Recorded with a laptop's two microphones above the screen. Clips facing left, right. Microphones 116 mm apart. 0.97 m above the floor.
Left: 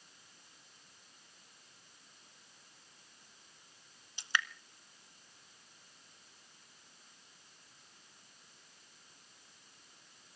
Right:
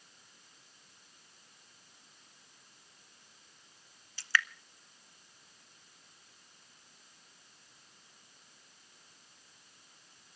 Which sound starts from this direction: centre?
Dripping, at 4.2 s.